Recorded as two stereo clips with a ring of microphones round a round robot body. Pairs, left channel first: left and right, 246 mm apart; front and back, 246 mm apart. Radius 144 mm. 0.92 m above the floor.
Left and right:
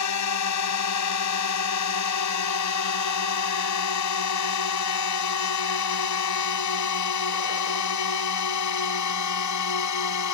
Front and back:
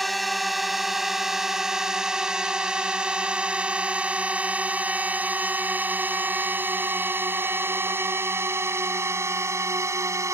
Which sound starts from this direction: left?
A drone, at 0.0 s.